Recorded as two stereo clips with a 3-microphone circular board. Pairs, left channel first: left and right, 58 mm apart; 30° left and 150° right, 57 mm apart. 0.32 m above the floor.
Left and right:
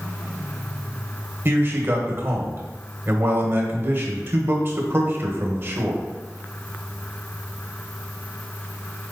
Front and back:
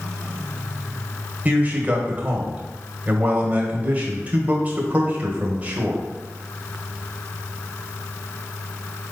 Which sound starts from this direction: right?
A man speaking, at 1.4 s.